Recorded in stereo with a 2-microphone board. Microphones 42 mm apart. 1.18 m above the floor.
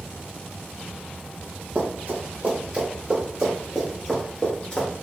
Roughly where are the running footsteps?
Right.